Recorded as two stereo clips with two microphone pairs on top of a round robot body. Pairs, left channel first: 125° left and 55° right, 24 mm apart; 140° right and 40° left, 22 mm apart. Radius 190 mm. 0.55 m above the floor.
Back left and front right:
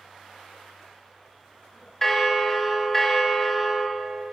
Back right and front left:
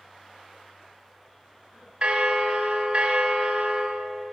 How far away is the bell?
About 1.0 m.